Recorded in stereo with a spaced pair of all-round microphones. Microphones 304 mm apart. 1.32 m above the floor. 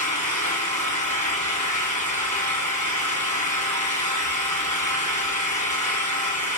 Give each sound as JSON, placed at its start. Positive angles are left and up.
{"t": 0.0, "sound": "an engine running", "side_deg": -85, "distance_m": 6.5}